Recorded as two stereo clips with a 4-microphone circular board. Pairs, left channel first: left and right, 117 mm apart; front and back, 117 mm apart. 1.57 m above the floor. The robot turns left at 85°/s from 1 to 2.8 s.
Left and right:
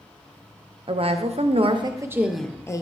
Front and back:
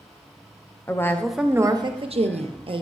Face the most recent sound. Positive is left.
turn(degrees=145)